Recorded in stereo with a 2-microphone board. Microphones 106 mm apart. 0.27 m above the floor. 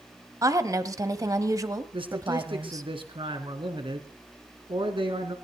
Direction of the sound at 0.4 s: 35° right (ahead or behind).